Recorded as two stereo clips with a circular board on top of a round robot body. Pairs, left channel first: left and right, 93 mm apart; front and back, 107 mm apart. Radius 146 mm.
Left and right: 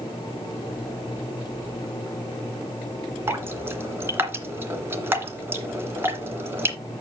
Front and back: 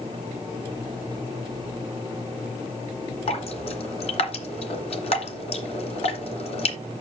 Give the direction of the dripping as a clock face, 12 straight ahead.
1 o'clock.